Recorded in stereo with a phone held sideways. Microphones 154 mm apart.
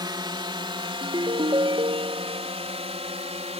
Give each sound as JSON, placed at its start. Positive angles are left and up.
{"t": 0.0, "sound": "a drone", "side_deg": -30}
{"t": 1.0, "sound": "a ringtone", "side_deg": -35}